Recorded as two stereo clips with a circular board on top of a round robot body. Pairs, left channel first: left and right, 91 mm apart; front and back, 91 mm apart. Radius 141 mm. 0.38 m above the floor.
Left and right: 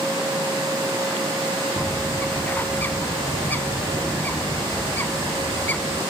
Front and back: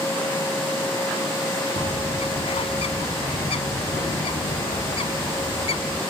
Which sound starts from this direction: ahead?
A bird, at 1.8 s.